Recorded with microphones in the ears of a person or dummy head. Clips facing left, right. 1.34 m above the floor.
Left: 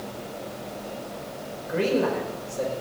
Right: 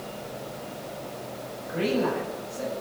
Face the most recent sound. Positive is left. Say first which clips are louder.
# left 2 dB
turn(degrees=50)  # may be behind; listen again after turning